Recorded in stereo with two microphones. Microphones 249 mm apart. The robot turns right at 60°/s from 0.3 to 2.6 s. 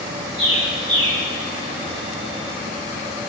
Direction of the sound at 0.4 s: 25° right (ahead or behind).